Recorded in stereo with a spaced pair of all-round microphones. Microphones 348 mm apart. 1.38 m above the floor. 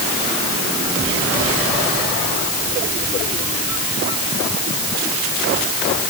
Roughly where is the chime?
No chime in this recording.